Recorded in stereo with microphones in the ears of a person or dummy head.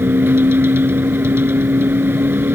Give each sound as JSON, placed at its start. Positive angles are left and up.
{"t": 0.0, "sound": "a vehicle", "side_deg": -15}